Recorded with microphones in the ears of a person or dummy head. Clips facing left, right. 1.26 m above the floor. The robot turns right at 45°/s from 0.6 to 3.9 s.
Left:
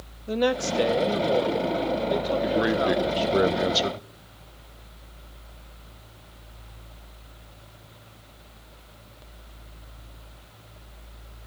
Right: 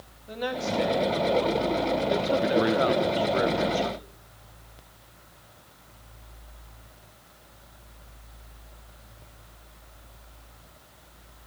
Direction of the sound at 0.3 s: 120° left.